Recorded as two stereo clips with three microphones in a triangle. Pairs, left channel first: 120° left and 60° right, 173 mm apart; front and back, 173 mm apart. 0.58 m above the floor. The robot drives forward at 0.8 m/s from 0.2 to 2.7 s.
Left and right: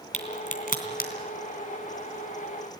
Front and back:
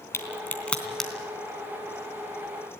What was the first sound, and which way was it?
A crack, 75° left.